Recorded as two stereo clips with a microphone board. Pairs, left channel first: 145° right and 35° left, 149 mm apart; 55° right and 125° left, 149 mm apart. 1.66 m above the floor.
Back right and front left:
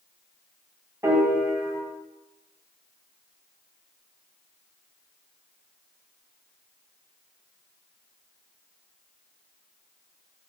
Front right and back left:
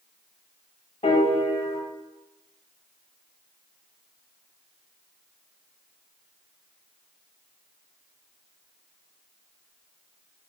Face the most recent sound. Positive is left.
turn(degrees=-30)